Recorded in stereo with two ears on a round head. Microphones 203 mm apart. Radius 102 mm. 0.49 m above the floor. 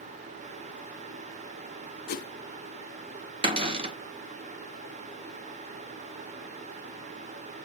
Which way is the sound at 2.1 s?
40° left (ahead or behind).